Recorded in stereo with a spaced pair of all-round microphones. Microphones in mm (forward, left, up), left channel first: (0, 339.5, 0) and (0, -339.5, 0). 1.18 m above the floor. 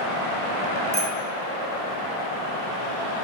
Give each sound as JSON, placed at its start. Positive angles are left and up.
{"t": 0.9, "sound": "a bicycle bell", "side_deg": -50, "distance_m": 3.5}